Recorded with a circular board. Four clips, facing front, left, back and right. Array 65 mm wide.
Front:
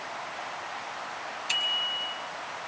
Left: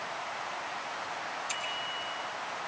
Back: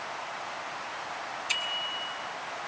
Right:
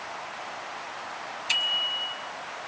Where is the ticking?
I don't hear ticking.